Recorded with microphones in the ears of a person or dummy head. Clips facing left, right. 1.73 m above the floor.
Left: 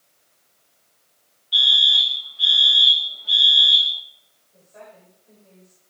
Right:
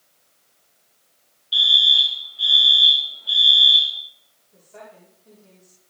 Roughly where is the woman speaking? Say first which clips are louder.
Right 1 dB; right.